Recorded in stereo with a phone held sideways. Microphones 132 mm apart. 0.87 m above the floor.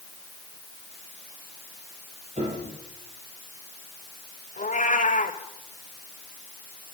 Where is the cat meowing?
80° left, 1.9 m.